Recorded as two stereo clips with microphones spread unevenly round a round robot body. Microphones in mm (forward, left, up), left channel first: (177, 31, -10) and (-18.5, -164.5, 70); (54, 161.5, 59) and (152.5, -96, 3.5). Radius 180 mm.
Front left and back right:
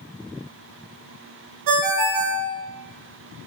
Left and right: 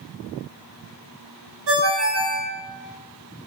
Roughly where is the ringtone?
Behind right.